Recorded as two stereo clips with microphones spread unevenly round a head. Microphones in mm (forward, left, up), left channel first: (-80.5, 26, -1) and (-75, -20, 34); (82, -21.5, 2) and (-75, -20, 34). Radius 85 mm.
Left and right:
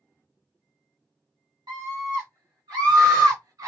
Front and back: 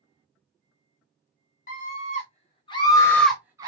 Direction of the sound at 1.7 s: 30° right.